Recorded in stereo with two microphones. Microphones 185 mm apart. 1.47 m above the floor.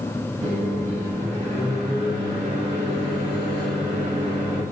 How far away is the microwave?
About 1.8 m.